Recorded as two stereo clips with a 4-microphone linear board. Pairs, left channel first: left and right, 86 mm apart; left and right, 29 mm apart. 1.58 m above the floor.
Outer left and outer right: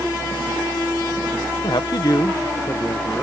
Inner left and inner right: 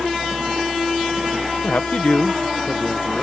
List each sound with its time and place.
1.6 s a man speaking: 70° left (ahead or behind); by 3.2 s 15° left (ahead or behind)